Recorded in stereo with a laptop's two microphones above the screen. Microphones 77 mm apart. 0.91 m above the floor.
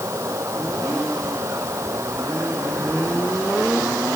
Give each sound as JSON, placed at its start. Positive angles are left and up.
{"t": 0.0, "sound": "running water", "side_deg": -40}